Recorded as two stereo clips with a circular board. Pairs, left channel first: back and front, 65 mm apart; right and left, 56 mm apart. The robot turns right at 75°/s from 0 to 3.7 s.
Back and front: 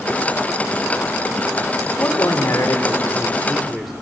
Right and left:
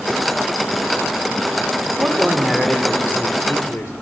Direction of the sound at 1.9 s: 135° left.